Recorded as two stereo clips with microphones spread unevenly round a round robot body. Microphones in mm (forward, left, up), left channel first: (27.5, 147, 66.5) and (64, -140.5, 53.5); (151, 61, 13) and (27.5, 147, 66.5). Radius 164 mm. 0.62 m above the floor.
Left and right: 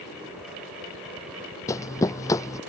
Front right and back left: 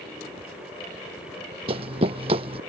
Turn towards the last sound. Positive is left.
turn(degrees=175)